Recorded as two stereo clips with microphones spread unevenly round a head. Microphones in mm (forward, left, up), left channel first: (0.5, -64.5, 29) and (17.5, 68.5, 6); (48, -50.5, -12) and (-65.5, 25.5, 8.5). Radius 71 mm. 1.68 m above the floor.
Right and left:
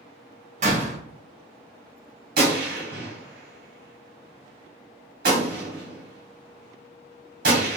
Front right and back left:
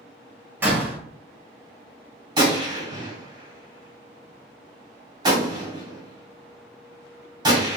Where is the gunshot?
100° left, 1.7 m.